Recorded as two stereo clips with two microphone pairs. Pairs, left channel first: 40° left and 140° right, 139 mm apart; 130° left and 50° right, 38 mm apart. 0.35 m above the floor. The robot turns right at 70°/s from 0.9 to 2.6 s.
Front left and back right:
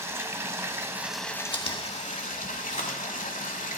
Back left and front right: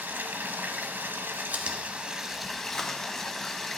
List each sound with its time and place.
0.0 s running water: 70° right, 1.0 m; by 3.8 s 50° left, 1.0 m
1.5 s chewing: 10° right, 1.6 m; by 3.6 s 65° left, 1.6 m